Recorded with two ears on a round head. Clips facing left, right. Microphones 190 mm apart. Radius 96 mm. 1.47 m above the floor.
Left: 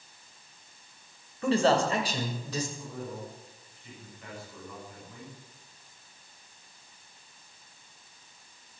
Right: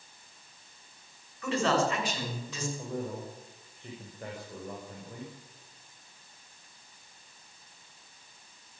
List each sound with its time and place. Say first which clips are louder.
1.4 s a man speaking: left 3 dB; 30° left (ahead or behind), 7 m; by 2.7 s 35° left (ahead or behind), 6.5 m
2.8 s a man speaking: right 3 dB; 40° right (ahead or behind), 7 m